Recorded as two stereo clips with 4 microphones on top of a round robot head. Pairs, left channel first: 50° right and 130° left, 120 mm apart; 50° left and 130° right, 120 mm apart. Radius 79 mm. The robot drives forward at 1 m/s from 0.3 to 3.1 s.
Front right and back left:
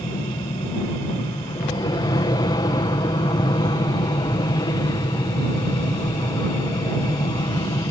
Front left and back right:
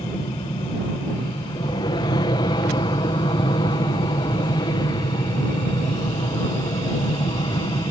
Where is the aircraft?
Straight ahead.